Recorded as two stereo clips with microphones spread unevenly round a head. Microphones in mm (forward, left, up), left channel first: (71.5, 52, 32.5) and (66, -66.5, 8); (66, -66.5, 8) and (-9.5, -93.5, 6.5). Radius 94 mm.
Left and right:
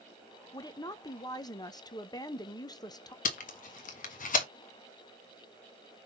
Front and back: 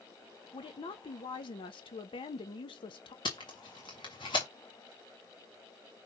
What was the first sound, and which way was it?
A woman speaking, 25° left.